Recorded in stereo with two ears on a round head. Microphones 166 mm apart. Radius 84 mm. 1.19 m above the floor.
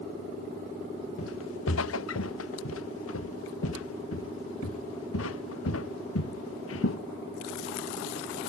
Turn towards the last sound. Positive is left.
turn(degrees=80)